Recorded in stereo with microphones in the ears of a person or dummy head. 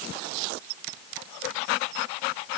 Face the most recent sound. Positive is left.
No sound to turn to.